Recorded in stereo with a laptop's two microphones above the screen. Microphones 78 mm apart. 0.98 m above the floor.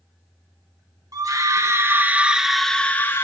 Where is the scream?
50° right (ahead or behind), 1.7 m; by 3.2 s 30° left (ahead or behind), 1.2 m.